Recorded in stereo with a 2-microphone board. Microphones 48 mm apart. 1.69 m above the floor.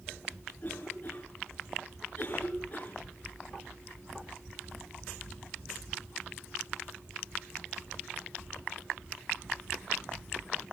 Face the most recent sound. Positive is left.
turn(degrees=35)  # may be behind; listen again after turning